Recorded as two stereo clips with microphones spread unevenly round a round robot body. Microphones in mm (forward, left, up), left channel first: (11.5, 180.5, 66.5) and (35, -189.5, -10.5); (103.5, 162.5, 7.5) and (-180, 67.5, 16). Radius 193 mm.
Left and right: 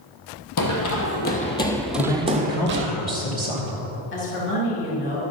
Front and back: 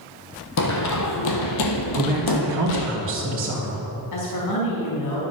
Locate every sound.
0.6 s running footsteps: 55° left, 1.3 m; by 2.9 s 25° right, 1.2 m
1.9 s a man speaking: 165° left, 2.0 m
4.1 s a woman speaking: 30° left, 3.5 m